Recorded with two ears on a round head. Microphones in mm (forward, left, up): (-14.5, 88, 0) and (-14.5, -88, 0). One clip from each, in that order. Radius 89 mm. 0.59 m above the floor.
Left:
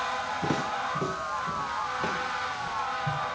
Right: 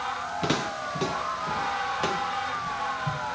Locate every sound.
0.4 s footsteps: 80° right, 3.5 m; by 3.4 s 45° right (ahead or behind), 5 m